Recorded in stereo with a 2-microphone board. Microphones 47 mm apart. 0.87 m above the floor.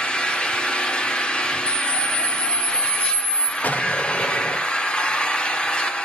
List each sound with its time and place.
0.0 s an engine running: 25° left (ahead or behind), 1.3 m
1.7 s a camera shutter: 30° left (ahead or behind), 1.9 m
3.6 s an explosion: 35° left (ahead or behind), 1.1 m